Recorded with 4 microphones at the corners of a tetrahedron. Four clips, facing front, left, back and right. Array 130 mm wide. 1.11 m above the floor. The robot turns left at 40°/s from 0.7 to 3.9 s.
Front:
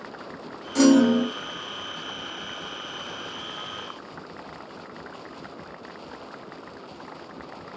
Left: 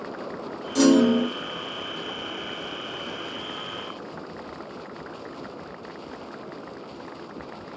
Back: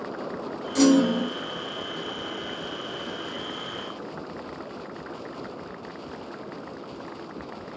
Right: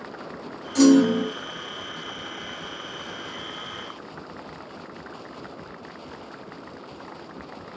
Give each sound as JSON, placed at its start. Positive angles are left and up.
{"t": 0.8, "sound": "a clunk", "azimuth_deg": 25, "distance_m": 1.7}